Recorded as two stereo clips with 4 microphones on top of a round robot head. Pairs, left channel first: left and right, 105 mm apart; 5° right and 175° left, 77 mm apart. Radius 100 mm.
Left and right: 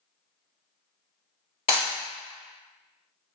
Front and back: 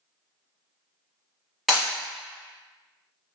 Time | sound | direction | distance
1.7 | breaking glass | 90° left | 1.9 m